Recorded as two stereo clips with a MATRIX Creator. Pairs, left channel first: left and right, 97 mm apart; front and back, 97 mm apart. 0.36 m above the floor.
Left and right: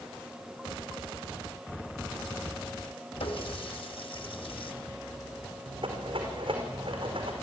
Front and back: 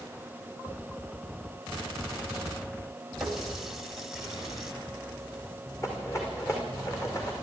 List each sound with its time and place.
3.2 s a running tap: 95° left, 1.6 m
5.8 s a rattle: 60° right, 5 m